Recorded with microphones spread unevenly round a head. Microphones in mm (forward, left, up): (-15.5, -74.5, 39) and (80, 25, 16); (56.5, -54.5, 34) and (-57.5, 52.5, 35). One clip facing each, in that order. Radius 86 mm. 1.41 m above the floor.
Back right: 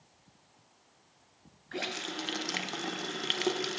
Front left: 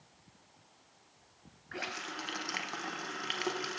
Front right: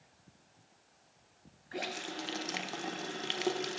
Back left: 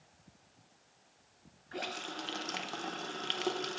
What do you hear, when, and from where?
1.7 s a running tap: 120° right, 0.5 m